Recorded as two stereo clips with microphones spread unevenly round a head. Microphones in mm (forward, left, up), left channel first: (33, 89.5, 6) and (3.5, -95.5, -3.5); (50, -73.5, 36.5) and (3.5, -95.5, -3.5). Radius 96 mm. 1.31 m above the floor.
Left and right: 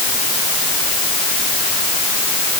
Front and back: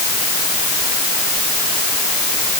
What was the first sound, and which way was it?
Only background noise.